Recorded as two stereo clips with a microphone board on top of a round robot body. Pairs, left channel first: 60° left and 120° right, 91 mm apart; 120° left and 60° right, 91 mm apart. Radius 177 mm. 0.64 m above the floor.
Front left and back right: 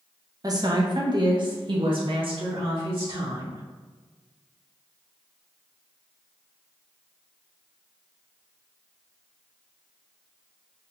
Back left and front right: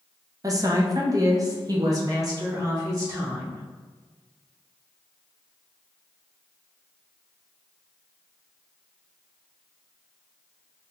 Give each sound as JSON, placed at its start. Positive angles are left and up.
{"t": 0.4, "sound": "a woman speaking", "azimuth_deg": -90, "distance_m": 1.1}